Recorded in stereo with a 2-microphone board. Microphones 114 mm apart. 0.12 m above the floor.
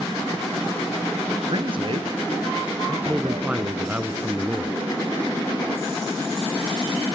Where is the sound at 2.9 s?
15° right (ahead or behind), 1.2 m.